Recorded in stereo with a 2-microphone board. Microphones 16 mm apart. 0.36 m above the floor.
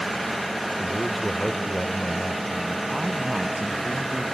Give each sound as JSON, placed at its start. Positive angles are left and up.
{"t": 0.8, "sound": "a man speaking", "side_deg": -25}
{"t": 2.9, "sound": "a man speaking", "side_deg": -55}